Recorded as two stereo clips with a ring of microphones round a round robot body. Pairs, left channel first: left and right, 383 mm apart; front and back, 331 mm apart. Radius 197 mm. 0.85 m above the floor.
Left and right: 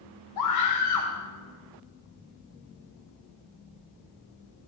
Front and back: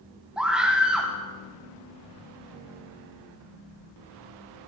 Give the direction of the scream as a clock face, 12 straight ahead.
9 o'clock.